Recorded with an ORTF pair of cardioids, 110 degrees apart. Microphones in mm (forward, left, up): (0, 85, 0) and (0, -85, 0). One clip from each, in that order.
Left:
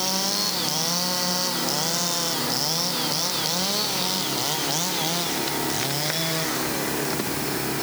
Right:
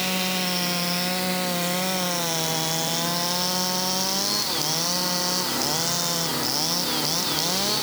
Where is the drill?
No drill in this recording.